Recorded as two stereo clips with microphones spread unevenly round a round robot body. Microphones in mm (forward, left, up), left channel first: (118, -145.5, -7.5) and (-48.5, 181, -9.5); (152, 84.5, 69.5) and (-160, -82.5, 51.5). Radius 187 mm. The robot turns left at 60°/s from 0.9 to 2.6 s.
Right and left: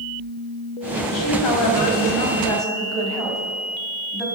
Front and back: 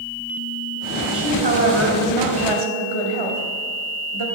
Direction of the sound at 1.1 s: 65° right.